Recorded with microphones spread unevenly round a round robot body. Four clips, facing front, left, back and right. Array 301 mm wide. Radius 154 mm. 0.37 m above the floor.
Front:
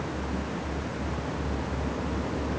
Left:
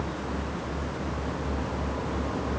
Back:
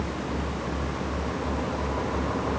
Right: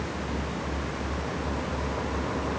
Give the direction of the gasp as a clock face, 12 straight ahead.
No gasp in this recording.